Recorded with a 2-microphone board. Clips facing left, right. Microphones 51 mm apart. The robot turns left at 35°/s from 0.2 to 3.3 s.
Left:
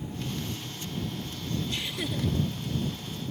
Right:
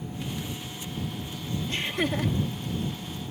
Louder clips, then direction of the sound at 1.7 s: Right 5 dB; 40° right (ahead or behind).